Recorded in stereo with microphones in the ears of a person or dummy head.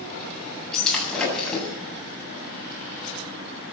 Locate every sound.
0.7 s breaking glass: centre (ahead or behind), 8 m